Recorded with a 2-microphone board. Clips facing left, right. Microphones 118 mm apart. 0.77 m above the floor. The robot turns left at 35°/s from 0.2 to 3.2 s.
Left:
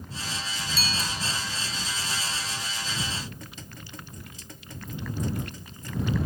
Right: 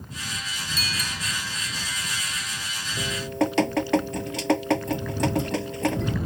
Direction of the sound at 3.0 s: 70° right (ahead or behind).